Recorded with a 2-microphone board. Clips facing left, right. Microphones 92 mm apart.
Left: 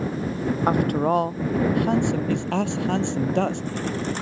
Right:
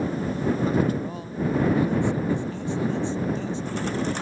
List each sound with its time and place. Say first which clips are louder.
0.7 s a man speaking: left 4 dB; 65° left (ahead or behind)